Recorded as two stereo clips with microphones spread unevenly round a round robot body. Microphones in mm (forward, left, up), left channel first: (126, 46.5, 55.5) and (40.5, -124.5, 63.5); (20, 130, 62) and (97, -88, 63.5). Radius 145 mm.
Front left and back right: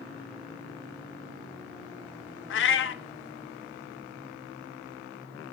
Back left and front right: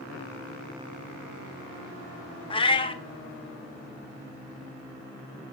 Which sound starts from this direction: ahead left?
A cat meowing, at 2.5 s.